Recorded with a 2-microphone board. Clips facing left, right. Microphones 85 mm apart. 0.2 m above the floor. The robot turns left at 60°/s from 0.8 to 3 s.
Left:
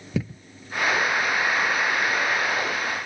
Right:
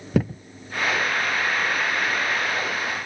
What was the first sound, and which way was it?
A thud, 60° right (ahead or behind).